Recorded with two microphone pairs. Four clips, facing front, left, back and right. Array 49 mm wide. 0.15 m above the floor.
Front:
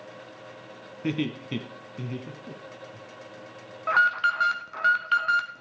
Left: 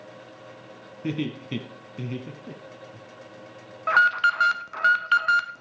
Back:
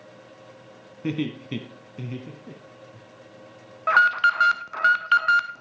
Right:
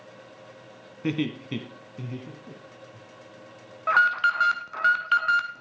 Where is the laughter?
70° right, 1.2 m; by 3.0 s 110° left, 1.9 m.